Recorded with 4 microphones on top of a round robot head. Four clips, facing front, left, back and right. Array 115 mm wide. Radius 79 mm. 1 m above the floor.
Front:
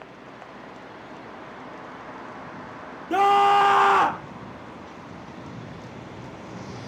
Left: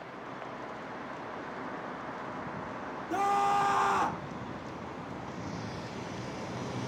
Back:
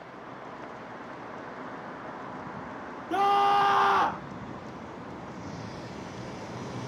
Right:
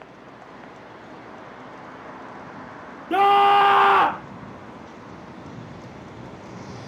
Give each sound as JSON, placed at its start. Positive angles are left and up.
{"t": 3.1, "sound": "a scream", "azimuth_deg": -65}